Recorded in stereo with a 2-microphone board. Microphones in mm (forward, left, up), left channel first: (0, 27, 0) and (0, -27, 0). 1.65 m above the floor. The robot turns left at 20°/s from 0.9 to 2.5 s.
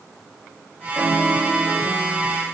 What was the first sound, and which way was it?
A piano, 40° right (ahead or behind).